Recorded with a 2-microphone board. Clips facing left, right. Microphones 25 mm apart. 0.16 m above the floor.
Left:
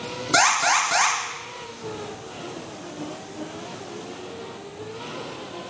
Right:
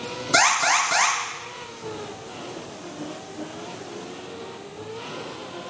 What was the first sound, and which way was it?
An alarm, 5° left (ahead or behind).